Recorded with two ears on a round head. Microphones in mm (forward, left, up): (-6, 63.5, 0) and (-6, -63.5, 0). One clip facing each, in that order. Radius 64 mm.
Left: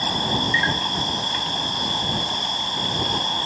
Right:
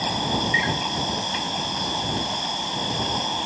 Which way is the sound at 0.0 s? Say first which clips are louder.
Even; 15° right (ahead or behind).